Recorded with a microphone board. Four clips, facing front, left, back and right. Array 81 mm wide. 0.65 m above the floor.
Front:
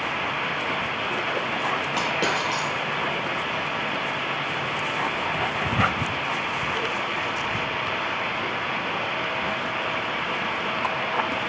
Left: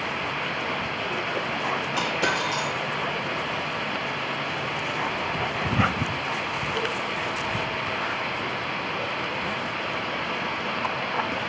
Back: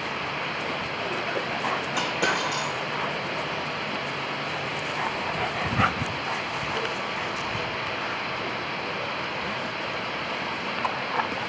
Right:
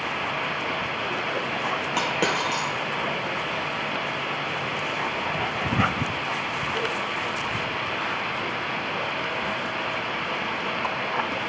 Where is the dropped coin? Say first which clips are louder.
Right 2 dB, even; 65° right, 2 m.